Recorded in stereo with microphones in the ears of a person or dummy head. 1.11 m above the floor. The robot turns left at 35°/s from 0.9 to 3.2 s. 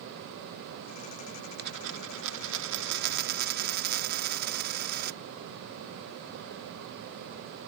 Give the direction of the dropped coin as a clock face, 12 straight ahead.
2 o'clock.